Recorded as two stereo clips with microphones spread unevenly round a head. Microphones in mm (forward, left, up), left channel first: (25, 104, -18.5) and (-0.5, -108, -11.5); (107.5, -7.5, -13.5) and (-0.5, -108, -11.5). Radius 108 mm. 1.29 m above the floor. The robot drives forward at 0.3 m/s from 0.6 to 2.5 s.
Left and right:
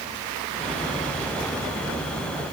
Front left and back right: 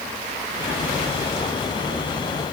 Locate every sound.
Only background noise.